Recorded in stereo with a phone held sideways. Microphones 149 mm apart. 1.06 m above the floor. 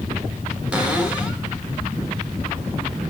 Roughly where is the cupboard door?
Centre.